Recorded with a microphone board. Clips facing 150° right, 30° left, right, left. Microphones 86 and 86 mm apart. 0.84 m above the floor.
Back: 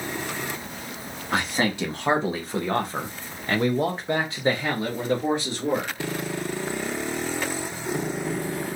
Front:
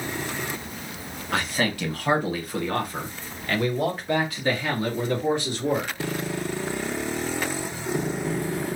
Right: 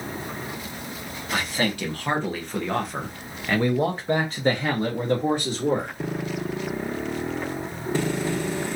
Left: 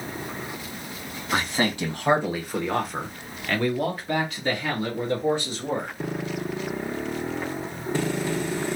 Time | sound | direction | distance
1.3 | a man speaking | 145° left | 1.5 m